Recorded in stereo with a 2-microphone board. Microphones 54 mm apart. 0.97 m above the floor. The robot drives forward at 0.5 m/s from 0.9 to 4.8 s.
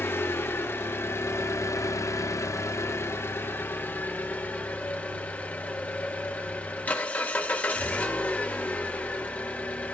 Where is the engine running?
45° left (ahead or behind), 1.0 m; by 9.9 s 25° left (ahead or behind), 1.5 m.